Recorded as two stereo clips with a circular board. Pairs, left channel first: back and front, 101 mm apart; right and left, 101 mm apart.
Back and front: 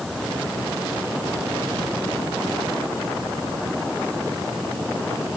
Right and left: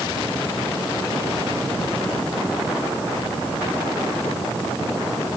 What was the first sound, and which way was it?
Only background noise.